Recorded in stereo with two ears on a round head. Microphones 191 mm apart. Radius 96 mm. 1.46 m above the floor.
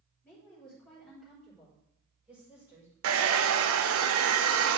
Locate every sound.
0.2 s a woman speaking: 10° left (ahead or behind), 4 m; by 2.9 s 10° right (ahead or behind), 4 m
3.0 s a hair dryer: 65° right (ahead or behind), 0.6 m